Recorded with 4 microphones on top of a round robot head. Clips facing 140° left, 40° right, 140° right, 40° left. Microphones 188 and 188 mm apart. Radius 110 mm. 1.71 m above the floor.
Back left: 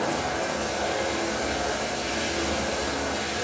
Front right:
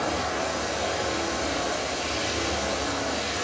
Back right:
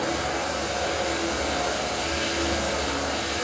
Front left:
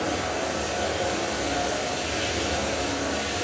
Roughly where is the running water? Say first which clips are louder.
Back left 1 dB, even; ahead.